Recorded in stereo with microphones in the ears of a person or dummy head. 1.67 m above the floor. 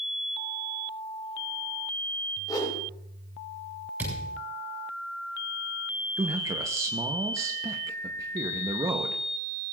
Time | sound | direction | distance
2.5 | a whoosh | 25° left (ahead or behind) | 5.5 m
4.0 | a thud | 10° right (ahead or behind) | 7 m
6.2 | a man speaking | 20° right (ahead or behind) | 0.9 m